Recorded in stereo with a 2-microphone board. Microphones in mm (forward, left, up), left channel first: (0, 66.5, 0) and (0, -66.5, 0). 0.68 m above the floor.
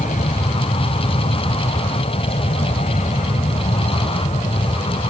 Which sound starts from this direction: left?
An aircraft, at 0.0 s.